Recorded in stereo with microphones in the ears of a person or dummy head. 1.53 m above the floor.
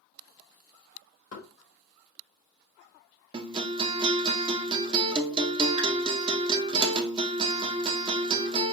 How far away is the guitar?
About 0.6 m.